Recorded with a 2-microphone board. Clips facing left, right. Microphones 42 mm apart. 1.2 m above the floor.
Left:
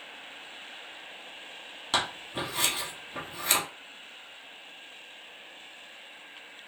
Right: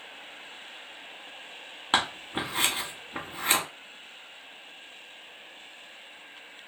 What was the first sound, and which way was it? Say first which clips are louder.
Scissors: right 3 dB; 30° right (ahead or behind).